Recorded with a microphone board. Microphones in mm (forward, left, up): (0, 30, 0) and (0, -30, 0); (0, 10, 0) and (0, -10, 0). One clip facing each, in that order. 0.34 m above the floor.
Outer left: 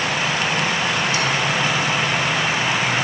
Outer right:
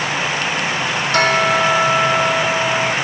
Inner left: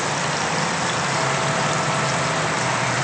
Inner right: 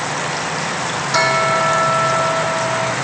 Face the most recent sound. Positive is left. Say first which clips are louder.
# outer right 6 dB, inner right 6 dB
turn(degrees=-55)  # may be behind; listen again after turning